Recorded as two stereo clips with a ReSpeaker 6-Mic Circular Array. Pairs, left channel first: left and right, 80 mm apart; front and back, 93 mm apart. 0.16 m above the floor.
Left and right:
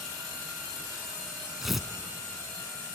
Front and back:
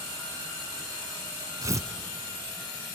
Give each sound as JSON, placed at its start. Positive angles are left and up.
{"t": 1.6, "sound": "tearing paper", "azimuth_deg": -175, "distance_m": 0.9}